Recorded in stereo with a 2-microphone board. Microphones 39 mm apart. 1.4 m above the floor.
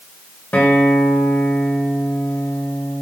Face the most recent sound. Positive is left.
turn(degrees=50)  # may be behind; listen again after turning